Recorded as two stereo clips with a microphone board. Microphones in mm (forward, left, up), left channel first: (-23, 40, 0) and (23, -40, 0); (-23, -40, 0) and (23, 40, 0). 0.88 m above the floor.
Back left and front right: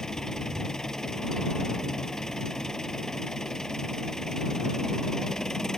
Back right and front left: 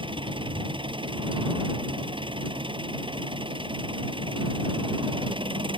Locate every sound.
0.0 s an engine running: 35° left